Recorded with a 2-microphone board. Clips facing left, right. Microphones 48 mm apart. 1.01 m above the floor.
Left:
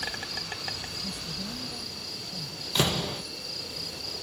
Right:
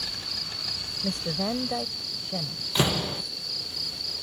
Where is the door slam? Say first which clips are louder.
Right 2 dB; 5° right (ahead or behind).